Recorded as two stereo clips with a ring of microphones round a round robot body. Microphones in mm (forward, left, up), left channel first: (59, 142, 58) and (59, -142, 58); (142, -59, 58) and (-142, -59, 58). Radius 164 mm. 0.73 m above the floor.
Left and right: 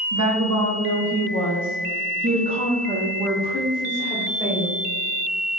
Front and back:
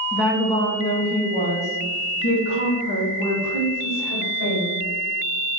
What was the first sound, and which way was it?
A woman speaking, 100° right.